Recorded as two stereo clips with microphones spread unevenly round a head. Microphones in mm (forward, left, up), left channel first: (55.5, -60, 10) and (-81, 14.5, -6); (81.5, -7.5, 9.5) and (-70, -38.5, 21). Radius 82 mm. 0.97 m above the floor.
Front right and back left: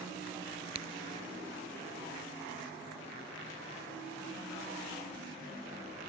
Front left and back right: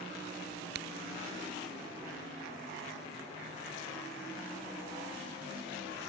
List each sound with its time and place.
0.8 s a crack: 155° right